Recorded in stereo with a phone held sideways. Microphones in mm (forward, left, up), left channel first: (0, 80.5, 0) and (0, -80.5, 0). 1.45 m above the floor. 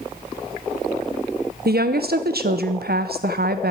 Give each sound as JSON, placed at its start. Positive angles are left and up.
{"t": 1.6, "sound": "a woman speaking", "side_deg": -80, "distance_m": 0.8}